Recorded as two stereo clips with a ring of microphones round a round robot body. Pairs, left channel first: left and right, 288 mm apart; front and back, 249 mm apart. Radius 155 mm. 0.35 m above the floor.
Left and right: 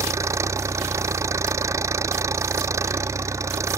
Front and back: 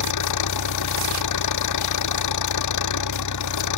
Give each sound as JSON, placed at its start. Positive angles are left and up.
{"t": 0.0, "sound": "an engine running", "azimuth_deg": -10}